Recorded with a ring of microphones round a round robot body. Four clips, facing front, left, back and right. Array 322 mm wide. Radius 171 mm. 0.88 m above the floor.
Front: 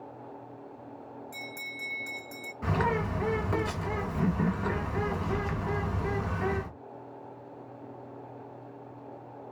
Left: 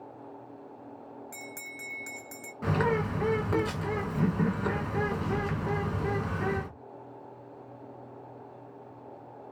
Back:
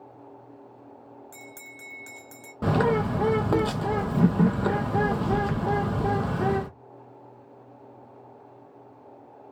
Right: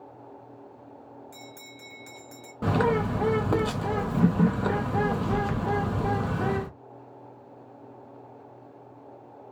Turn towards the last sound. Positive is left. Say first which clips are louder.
# right 4 dB, back 6 dB
turn(degrees=-150)